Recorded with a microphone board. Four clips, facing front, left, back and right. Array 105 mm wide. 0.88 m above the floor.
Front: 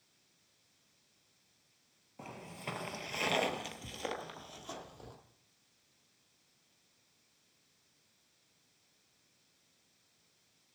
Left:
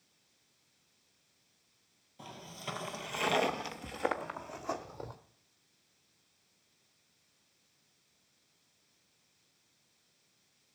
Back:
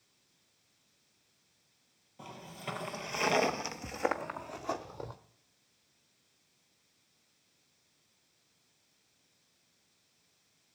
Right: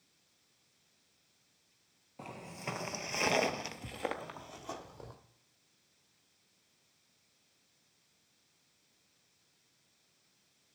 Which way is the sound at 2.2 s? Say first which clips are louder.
Right 2 dB, back 1 dB; 65° right.